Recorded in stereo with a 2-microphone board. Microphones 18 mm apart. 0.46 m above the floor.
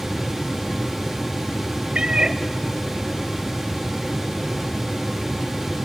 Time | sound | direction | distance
1.9 | a cat meowing | 75° right (ahead or behind) | 0.8 m